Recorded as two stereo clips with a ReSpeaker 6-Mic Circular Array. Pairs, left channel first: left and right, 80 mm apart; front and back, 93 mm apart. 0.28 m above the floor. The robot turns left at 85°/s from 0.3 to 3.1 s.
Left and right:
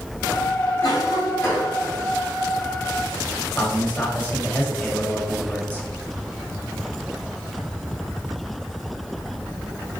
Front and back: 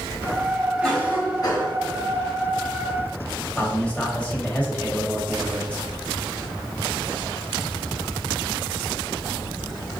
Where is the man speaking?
55° left, 0.9 m.